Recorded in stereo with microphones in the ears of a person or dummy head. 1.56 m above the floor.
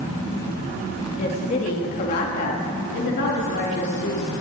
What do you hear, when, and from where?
1.1 s a woman speaking: 30° left (ahead or behind), 2.0 m; by 4.3 s 50° left (ahead or behind), 3.5 m